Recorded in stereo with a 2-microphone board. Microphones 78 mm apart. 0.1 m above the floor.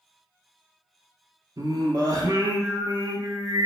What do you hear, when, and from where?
1.6 s singing: 55° right (ahead or behind), 0.7 m